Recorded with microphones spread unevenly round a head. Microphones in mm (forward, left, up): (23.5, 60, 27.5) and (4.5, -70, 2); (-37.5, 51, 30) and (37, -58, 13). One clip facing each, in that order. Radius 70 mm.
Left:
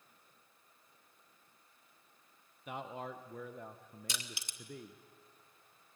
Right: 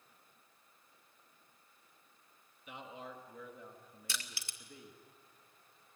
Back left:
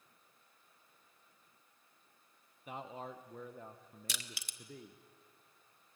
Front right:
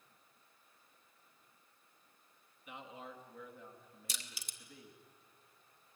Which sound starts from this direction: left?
A man speaking, at 2.7 s.